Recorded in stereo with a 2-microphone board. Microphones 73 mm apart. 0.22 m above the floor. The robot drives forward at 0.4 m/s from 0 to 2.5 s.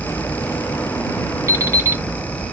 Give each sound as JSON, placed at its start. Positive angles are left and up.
{"t": 1.5, "sound": "an alarm clock", "side_deg": -40, "distance_m": 0.8}